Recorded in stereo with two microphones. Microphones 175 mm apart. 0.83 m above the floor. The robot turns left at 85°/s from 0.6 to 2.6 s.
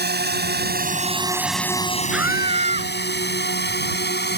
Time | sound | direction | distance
0.0 | a drone | 75° right (ahead or behind) | ?
2.1 | a scream | straight ahead | ?